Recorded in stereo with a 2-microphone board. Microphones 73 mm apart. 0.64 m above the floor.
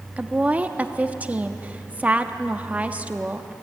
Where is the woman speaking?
20° right (ahead or behind), 0.9 m.